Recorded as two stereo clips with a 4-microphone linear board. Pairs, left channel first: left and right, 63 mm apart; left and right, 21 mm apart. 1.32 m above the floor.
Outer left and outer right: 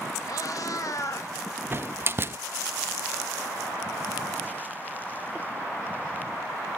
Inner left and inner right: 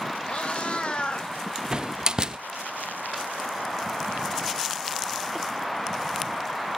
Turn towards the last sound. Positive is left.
turn(degrees=-35)  # may be behind; listen again after turning